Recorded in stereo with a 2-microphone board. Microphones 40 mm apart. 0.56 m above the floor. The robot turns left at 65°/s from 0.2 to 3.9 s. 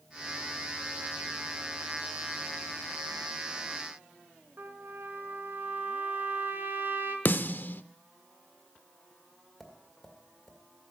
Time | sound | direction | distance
4.6 | a trumpet | 55° right (ahead or behind) | 1.9 m
7.2 | a snare drum | 50° left (ahead or behind) | 0.5 m
9.6 | tapping | centre (ahead or behind) | 1.8 m